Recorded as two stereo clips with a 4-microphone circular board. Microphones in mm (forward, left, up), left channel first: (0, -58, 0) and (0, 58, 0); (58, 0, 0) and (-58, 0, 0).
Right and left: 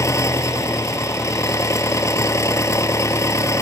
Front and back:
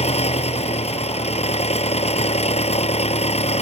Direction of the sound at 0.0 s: 25° right.